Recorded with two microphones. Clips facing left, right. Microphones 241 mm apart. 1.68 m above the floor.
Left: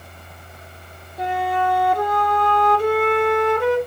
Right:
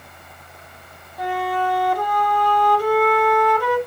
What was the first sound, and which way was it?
A flute, 25° left (ahead or behind).